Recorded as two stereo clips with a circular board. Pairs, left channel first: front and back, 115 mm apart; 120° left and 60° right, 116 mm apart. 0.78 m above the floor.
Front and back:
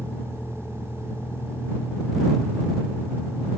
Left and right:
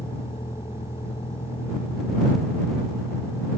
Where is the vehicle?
75° left.